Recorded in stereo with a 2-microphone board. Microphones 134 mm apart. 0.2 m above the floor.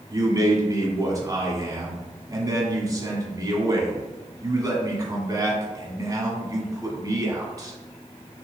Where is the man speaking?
25° right (ahead or behind), 1.5 m.